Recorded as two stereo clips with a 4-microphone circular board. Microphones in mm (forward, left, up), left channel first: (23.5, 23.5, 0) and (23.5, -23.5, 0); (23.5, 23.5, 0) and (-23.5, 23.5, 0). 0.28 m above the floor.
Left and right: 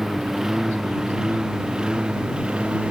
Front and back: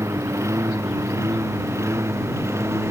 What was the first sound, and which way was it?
A lawn mower, 170° right.